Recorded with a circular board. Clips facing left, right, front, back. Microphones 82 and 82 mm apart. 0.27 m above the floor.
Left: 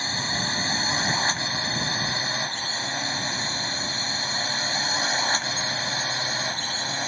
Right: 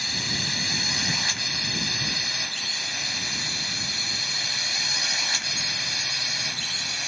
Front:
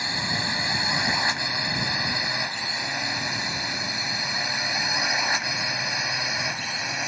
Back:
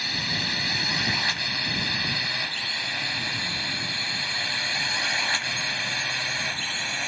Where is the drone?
55° left; by 7.1 s 70° left.